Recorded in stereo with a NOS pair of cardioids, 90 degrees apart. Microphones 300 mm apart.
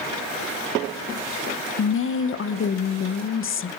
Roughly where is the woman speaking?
Ahead left.